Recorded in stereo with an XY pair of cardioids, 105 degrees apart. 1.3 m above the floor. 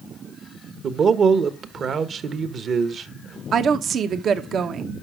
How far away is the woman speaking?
About 0.9 m.